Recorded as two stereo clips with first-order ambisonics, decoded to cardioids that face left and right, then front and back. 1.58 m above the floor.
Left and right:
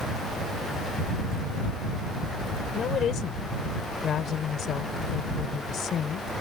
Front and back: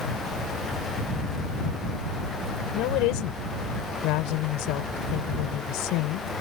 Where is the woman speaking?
30° left.